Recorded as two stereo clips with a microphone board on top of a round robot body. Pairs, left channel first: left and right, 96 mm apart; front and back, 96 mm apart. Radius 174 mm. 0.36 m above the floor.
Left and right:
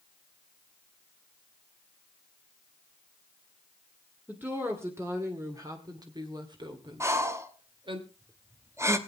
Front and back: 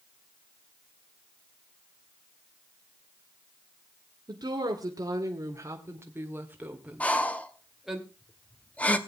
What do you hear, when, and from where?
4.3 s a woman speaking: 155° right, 2 m; by 8.0 s 95° right, 2.5 m
7.0 s breathing: 65° right, 1.4 m